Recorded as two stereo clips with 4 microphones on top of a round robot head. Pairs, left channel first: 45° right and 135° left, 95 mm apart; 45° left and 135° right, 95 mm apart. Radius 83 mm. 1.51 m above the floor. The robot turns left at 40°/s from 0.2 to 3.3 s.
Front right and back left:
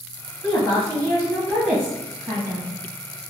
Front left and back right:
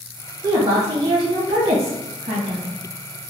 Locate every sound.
0.4 s a woman speaking: 85° right, 1.4 m; by 2.7 s 175° right, 1.4 m